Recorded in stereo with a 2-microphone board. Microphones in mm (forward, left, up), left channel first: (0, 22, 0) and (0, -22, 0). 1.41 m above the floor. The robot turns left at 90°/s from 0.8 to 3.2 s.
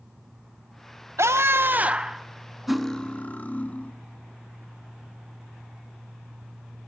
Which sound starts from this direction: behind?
Cutlery clinking, at 2.7 s.